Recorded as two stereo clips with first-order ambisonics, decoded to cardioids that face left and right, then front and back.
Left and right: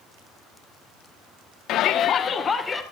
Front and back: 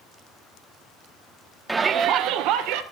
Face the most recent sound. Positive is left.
turn(degrees=165)